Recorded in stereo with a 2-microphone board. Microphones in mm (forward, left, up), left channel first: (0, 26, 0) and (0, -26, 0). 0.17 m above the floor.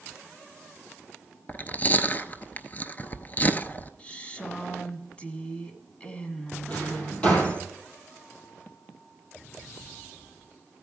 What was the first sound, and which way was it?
Chewing, 35° left (ahead or behind).